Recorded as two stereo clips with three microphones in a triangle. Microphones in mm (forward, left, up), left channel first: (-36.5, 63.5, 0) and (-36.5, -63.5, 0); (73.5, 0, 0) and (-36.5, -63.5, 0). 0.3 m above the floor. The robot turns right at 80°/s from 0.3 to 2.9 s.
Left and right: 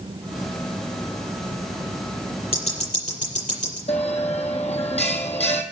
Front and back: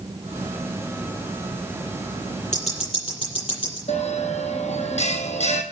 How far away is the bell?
About 1.7 m.